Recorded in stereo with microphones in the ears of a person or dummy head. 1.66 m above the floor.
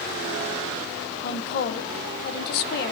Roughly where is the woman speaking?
Left.